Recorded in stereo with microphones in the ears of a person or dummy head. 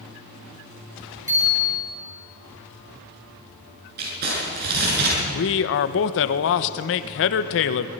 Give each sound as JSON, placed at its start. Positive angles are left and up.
{"t": 1.3, "sound": "a bicycle bell", "side_deg": -15, "distance_m": 5.5}
{"t": 4.0, "sound": "crumpling", "side_deg": -55, "distance_m": 8.0}
{"t": 5.3, "sound": "a man speaking", "side_deg": 65, "distance_m": 1.0}